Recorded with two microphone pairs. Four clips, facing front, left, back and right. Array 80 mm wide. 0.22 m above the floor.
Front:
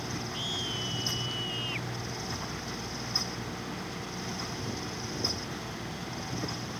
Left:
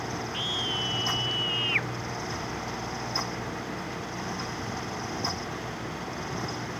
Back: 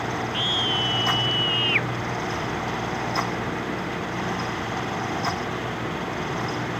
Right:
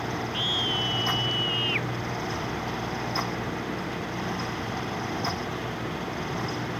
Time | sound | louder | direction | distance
0.3 | a scream | right 3 dB, back 11 dB | 155° left | ?